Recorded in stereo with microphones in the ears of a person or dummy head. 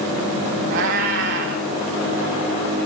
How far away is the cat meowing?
About 1.6 m.